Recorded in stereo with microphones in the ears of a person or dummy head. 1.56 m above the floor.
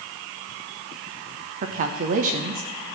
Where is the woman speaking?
35° right (ahead or behind), 0.8 m.